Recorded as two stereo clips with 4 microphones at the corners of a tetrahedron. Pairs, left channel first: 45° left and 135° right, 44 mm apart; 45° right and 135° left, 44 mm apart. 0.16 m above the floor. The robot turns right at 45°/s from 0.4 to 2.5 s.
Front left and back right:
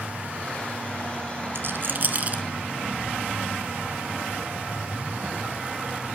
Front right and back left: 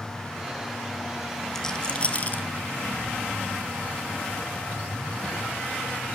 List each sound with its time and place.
1.6 s a rattle: 125° right, 0.7 m; by 2.4 s 85° right, 0.7 m